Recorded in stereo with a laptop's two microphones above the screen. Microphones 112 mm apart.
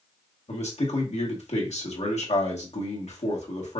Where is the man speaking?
90° left, 1.5 m.